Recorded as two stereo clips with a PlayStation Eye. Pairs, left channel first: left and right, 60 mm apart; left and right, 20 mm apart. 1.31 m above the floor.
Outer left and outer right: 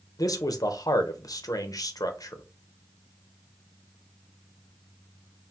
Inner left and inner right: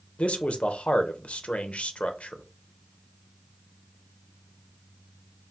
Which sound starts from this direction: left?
A man speaking, at 0.2 s.